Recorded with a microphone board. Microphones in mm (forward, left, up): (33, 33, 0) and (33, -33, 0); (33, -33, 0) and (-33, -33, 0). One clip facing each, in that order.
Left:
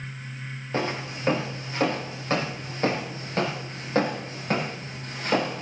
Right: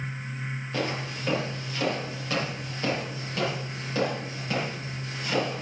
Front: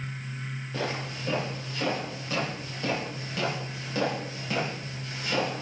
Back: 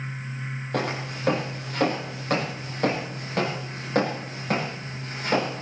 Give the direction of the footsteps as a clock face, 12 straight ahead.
7 o'clock.